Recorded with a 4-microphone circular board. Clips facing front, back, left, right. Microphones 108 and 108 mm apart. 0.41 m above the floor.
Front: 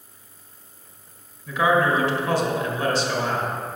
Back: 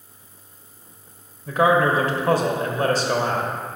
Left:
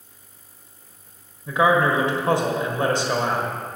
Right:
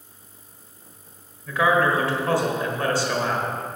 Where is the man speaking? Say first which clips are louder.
Back 2 dB, left 2 dB; 150° left, 1.4 m.